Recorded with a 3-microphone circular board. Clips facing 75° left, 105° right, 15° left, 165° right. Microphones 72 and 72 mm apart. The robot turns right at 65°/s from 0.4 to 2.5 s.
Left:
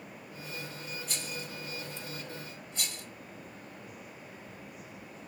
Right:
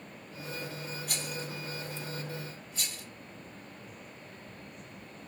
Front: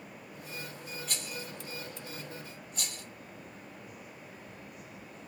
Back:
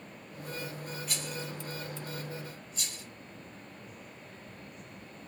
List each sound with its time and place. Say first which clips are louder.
1.1 s a rattle: right 2 dB, back 2 dB; 85° right, 1.6 m; by 3.0 s 10° left, 1.6 m